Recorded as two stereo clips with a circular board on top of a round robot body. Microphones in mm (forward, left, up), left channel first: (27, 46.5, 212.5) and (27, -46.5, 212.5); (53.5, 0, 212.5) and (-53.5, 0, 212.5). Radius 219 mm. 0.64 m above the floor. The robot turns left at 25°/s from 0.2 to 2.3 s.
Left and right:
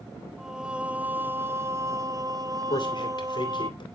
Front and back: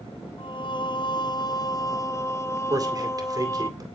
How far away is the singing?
About 1.1 m.